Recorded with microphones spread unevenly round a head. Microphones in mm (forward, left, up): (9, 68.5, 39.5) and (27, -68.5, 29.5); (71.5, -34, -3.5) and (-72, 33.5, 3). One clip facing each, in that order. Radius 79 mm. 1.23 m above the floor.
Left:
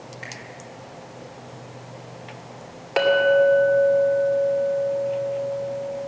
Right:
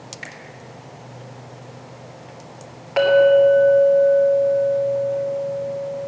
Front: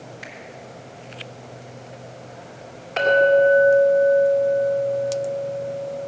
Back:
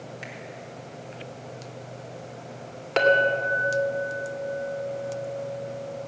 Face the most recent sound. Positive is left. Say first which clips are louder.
# right 4 dB, front 6 dB
turn(degrees=160)